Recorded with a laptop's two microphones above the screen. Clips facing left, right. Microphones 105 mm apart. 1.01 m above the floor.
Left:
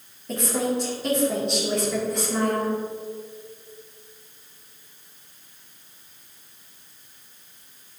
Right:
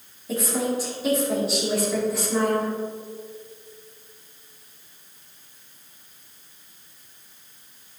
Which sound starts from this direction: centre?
A woman speaking, at 0.3 s.